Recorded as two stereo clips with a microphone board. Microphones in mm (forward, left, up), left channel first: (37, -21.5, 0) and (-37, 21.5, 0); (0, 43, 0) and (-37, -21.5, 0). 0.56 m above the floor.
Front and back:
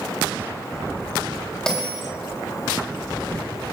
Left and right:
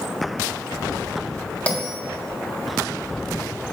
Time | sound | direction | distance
1.7 | a bell | 40° left | 0.7 m